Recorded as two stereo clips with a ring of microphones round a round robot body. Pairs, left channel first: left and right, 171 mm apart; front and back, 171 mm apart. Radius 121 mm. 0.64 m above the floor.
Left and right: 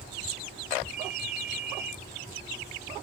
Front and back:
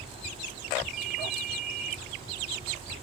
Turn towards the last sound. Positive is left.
turn(degrees=-130)